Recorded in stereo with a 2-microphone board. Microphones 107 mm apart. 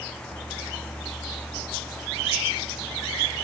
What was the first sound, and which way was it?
Only background noise.